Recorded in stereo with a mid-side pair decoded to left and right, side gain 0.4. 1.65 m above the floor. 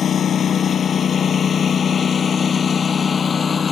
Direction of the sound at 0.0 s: 60° left.